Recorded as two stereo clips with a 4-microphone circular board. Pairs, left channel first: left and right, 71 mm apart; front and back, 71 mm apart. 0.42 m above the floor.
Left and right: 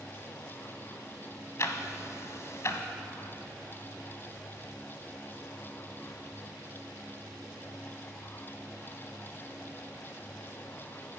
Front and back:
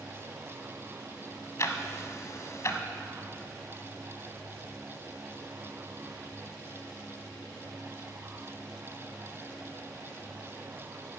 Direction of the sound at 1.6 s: 45° left.